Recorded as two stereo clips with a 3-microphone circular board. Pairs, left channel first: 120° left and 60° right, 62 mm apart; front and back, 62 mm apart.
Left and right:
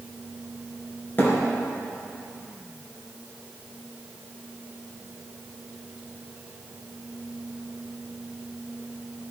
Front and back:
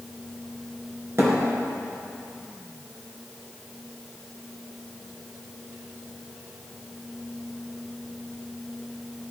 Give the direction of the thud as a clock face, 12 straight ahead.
7 o'clock.